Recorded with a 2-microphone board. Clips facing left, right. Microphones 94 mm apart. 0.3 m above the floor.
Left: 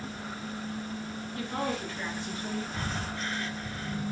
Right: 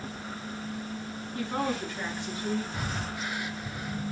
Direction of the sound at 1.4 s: 25° right (ahead or behind).